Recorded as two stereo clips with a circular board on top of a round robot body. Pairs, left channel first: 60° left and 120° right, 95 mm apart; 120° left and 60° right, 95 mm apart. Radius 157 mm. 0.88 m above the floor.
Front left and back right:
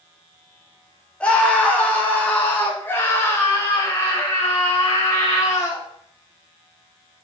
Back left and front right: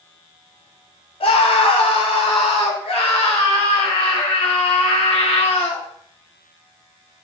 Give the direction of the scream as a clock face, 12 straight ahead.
7 o'clock.